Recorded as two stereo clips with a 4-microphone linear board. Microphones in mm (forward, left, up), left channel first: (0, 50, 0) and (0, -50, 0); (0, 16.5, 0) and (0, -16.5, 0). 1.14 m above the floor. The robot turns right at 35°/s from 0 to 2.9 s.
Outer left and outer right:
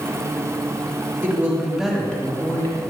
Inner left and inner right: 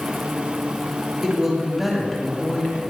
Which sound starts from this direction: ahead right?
A woman speaking, at 1.2 s.